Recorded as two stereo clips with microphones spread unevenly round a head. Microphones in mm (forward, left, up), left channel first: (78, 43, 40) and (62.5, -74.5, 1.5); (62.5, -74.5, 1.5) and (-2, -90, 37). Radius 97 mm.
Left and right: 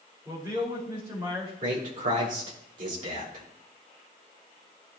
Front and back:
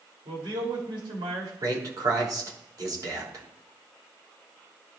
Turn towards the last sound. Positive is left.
turn(degrees=-135)